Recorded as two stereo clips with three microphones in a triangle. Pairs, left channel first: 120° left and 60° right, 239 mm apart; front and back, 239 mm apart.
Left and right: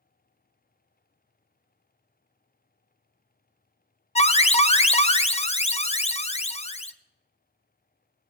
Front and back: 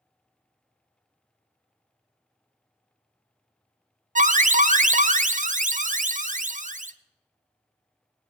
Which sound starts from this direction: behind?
An alarm, at 4.2 s.